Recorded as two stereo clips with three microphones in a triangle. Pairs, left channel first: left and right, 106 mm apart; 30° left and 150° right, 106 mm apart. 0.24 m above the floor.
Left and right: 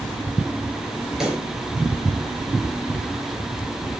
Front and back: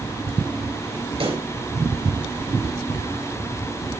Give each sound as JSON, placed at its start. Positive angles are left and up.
{"t": 1.2, "sound": "a pop", "azimuth_deg": -175, "distance_m": 4.5}